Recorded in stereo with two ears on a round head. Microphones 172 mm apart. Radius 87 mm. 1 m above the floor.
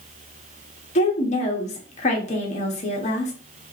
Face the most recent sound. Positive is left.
turn(degrees=35)  # may be behind; listen again after turning